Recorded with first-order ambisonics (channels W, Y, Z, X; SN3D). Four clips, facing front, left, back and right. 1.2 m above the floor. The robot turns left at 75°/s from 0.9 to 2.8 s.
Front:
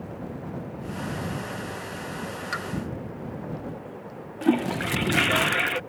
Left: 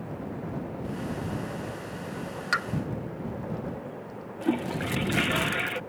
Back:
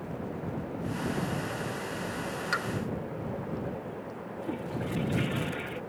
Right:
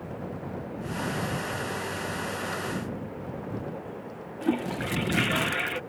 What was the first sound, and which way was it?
A pop, 95° left.